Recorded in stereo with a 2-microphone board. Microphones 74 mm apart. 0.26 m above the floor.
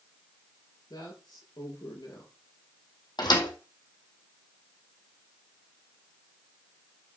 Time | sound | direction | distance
0.9 | a woman speaking | 75° left (ahead or behind) | 5 m
3.2 | a thud | 70° left (ahead or behind) | 2.5 m